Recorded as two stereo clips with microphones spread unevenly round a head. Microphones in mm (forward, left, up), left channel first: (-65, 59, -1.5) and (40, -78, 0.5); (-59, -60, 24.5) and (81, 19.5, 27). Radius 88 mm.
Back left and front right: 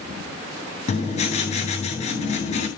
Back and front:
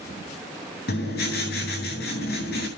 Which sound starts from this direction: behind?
Writing, at 0.9 s.